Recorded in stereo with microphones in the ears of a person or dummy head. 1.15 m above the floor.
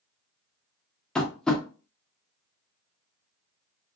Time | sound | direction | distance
1.1 | tapping | 5° left (ahead or behind) | 0.6 m